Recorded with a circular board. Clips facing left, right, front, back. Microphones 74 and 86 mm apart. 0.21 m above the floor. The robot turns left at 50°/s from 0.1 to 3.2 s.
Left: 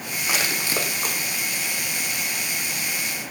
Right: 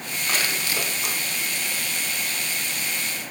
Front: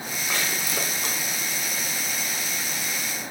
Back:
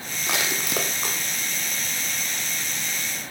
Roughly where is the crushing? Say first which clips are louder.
Left 1 dB, back 2 dB; behind.